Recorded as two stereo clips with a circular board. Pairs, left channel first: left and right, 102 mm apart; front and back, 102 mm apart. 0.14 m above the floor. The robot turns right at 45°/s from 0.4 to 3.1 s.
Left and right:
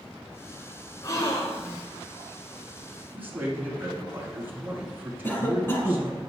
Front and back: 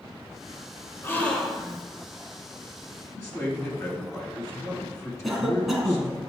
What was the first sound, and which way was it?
A gasp, 55° left.